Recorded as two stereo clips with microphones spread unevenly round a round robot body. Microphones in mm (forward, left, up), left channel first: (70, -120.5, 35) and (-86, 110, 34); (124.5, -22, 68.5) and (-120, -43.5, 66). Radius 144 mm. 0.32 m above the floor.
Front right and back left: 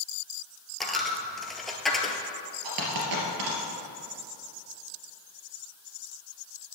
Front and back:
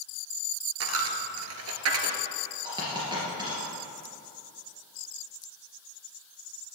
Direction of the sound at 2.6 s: 110° left.